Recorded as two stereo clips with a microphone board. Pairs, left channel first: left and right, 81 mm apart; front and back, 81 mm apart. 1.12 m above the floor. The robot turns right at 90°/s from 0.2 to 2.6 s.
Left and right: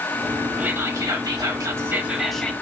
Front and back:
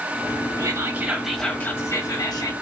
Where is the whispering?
155° right, 0.9 m; by 2.5 s 20° left, 0.9 m.